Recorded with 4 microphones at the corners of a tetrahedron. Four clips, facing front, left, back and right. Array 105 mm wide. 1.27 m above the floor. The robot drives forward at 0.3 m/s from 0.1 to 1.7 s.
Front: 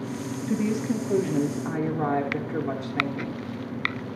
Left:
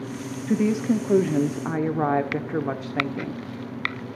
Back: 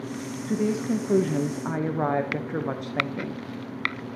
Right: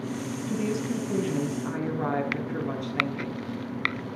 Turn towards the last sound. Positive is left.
turn(degrees=125)